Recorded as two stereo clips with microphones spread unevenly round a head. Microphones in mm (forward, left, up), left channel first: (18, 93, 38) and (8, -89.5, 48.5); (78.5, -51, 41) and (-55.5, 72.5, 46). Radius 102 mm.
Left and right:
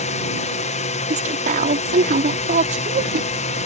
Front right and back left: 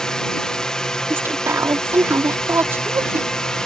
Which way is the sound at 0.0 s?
45° left.